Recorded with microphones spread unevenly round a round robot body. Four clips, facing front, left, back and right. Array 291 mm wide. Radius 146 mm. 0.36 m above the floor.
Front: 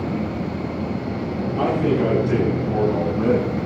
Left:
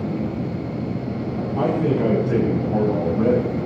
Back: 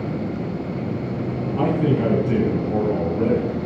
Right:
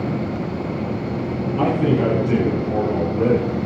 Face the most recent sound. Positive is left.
turn(degrees=-135)